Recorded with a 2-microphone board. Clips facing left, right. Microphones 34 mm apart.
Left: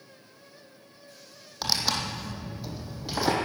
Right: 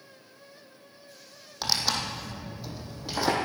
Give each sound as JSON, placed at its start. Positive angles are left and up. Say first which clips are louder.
{"t": 1.6, "sound": "tearing paper", "louder": "even", "side_deg": 5, "distance_m": 2.0}